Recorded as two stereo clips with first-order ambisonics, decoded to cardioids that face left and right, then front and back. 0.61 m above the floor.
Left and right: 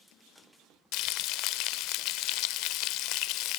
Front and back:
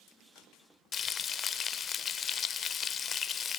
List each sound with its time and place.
0.9 s frying: 60° left, 0.5 m